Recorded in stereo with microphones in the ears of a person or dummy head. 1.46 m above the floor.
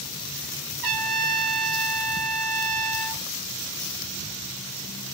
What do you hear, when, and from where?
0.8 s a trumpet: 55° right (ahead or behind), 0.9 m